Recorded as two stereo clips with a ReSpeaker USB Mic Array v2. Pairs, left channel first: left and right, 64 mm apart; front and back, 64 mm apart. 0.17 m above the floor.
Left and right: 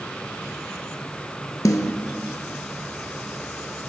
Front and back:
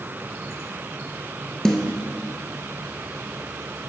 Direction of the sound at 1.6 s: 80° left.